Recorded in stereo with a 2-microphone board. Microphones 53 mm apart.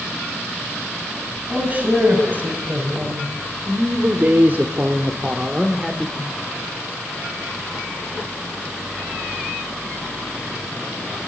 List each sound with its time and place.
1.5 s a man speaking: 35° right (ahead or behind), 5 m; by 6.3 s 5° right (ahead or behind), 2.5 m